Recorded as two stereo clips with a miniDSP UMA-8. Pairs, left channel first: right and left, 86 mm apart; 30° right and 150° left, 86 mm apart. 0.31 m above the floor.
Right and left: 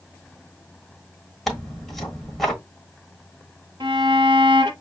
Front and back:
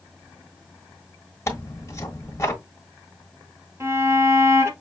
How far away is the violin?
About 0.9 m.